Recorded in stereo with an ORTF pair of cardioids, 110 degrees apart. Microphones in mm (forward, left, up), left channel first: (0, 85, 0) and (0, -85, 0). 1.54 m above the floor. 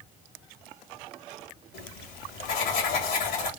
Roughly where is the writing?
Ahead left.